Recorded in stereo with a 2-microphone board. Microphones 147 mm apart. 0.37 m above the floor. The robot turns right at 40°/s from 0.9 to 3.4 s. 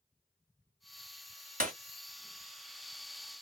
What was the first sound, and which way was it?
Breaking glass, 65° right (ahead or behind).